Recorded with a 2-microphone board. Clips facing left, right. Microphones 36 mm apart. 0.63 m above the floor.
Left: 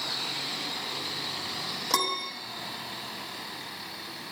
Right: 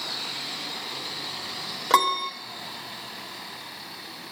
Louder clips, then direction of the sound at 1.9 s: Right 8 dB; 35° right (ahead or behind).